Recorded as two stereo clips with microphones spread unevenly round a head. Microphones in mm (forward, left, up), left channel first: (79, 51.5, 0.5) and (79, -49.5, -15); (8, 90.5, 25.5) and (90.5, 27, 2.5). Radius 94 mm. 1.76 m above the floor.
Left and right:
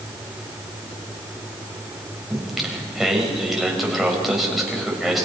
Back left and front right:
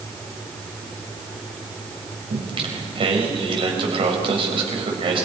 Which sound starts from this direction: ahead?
Singing, at 2.3 s.